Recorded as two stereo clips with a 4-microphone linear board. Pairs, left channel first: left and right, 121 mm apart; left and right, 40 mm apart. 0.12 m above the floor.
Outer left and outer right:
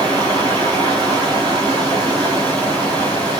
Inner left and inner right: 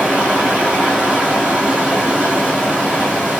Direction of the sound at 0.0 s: 35° right (ahead or behind).